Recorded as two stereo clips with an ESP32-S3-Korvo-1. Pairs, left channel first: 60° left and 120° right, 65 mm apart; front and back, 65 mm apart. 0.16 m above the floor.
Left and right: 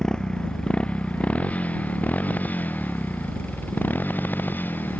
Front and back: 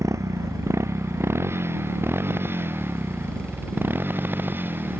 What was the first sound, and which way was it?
A motorcycle, 140° left.